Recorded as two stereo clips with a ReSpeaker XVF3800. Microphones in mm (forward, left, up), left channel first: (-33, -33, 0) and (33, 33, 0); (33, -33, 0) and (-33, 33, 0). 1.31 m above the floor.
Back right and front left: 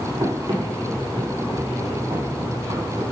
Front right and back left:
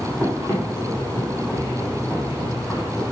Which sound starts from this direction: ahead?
Running footsteps, at 0.2 s.